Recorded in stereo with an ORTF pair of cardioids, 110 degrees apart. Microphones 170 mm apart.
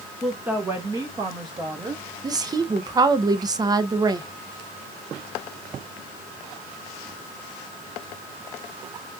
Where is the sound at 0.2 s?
Straight ahead, 0.9 m; by 2.1 s 30° right, 2.5 m.